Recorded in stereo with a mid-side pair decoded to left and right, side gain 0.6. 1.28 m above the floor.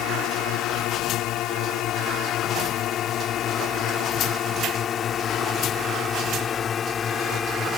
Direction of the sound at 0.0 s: 70° left.